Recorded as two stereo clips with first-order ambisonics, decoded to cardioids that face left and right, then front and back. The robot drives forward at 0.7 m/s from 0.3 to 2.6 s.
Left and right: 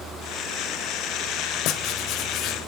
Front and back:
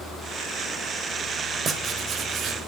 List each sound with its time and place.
1.6 s writing: 115° left, 1.4 m; by 2.6 s 135° left, 1.8 m